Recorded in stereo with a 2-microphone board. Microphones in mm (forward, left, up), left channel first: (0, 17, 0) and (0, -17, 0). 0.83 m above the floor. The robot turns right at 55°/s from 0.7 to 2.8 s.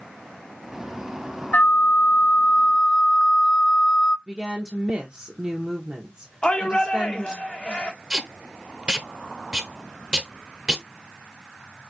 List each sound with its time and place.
1.5 s a flute: 85° left, 0.5 m; by 4.2 s 155° left, 0.5 m
4.3 s a woman speaking: 25° right (ahead or behind), 0.7 m
6.4 s a shout: 35° left (ahead or behind), 1.1 m
8.1 s tape being pulled: 25° right (ahead or behind), 0.6 m